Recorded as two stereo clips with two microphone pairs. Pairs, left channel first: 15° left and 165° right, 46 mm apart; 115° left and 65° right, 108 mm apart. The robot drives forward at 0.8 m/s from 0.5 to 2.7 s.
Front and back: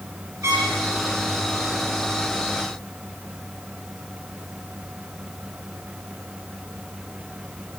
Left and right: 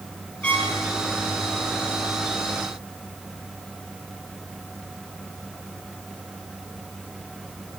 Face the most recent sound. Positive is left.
turn(degrees=-170)